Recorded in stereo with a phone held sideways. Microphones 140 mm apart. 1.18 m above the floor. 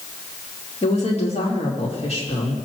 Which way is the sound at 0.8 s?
50° left (ahead or behind).